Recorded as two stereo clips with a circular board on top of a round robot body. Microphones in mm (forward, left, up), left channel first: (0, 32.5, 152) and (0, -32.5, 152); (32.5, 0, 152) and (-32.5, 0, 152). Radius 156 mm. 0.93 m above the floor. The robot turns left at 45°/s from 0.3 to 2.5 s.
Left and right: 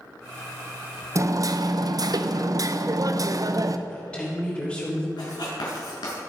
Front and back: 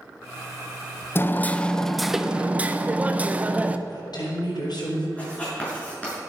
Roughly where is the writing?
Left.